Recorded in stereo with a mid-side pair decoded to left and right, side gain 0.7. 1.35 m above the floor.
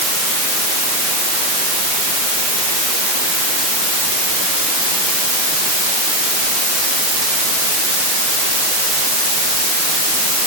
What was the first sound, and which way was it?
Only background noise.